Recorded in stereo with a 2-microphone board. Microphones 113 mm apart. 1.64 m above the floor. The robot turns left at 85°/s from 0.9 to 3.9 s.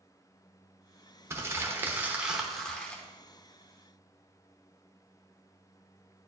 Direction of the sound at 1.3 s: 20° right (ahead or behind).